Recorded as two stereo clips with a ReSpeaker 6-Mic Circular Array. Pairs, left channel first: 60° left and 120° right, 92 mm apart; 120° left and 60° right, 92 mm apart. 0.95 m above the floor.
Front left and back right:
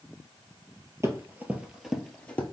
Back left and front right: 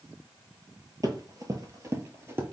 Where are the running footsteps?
75° right, 1.2 m; by 2.4 s 10° right, 1.3 m.